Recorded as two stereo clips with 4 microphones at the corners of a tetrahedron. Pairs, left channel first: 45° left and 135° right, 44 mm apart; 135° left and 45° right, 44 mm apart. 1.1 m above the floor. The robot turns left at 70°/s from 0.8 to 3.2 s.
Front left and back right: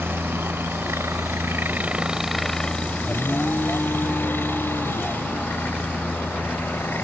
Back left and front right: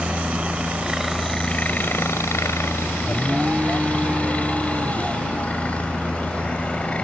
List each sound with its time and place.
0.0 s a helicopter: 110° right; by 7.0 s 75° left
3.0 s an alarm: 40° left; by 5.3 s 30° left